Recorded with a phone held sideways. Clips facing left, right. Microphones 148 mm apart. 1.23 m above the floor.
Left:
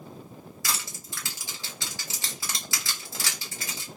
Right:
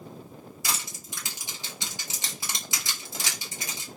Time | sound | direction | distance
0.6 | crushing | 20° right (ahead or behind) | 1.0 m